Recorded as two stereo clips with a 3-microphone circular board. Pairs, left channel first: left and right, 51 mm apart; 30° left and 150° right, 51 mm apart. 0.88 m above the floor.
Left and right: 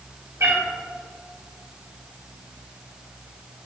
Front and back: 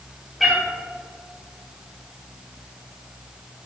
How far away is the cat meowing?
About 1.4 m.